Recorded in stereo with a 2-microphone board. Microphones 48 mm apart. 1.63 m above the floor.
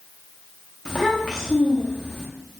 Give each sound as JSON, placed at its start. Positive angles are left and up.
{"t": 0.8, "sound": "a child speaking", "side_deg": 20, "distance_m": 0.7}